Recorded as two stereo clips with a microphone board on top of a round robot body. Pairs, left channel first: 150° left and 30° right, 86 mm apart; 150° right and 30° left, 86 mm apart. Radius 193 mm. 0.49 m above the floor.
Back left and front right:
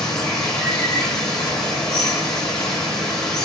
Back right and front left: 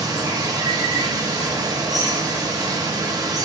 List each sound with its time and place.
0.0 s running water: 65° left, 1.4 m